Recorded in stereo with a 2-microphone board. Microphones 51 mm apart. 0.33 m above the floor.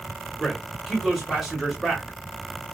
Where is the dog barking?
I don't hear a dog barking.